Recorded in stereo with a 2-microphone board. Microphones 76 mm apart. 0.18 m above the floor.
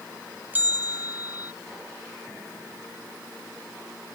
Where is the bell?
25° right (ahead or behind).